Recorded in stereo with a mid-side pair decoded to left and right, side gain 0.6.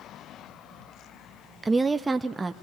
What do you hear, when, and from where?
1.6 s a woman speaking: 20° right, 0.5 m